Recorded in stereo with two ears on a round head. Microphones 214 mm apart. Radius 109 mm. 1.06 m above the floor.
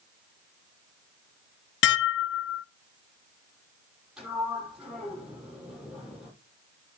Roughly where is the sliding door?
Centre.